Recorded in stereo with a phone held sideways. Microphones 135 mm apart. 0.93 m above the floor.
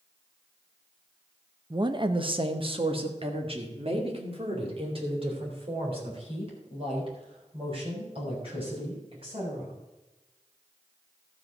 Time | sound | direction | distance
1.7 | a woman speaking | 30° right (ahead or behind) | 0.7 m